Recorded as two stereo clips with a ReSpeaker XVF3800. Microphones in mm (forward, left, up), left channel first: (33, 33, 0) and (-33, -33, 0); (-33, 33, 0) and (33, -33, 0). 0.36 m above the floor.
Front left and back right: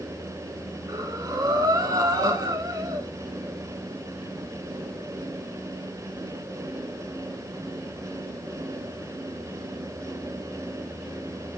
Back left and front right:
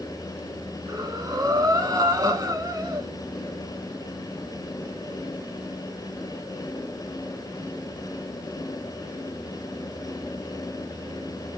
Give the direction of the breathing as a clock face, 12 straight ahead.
3 o'clock.